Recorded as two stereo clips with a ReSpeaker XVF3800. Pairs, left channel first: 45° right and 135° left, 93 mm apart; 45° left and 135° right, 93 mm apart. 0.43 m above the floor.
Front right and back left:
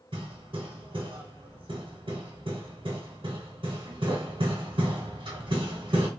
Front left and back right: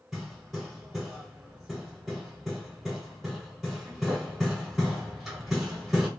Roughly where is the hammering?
Behind left.